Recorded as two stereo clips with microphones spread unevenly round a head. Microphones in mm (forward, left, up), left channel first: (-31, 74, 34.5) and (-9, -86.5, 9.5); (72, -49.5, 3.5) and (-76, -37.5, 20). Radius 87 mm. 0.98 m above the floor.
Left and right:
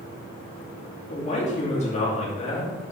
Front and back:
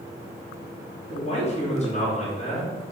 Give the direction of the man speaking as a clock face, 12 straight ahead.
11 o'clock.